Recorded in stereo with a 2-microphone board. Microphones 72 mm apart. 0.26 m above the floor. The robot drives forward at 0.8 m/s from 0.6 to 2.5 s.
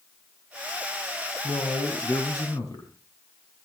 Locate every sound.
1.4 s a man speaking: 55° left (ahead or behind), 3 m